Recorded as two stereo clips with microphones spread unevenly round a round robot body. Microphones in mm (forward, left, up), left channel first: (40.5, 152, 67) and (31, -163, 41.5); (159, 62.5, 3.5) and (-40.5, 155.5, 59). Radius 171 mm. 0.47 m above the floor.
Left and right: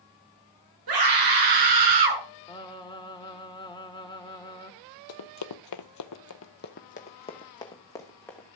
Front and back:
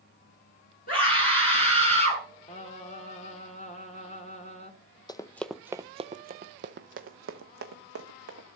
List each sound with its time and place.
0.9 s a scream: 85° right, 6.5 m; by 2.2 s 95° right, 5 m
2.5 s singing: 10° left, 1.7 m
5.1 s running footsteps: 55° left, 0.9 m; by 8.4 s 170° left, 1.9 m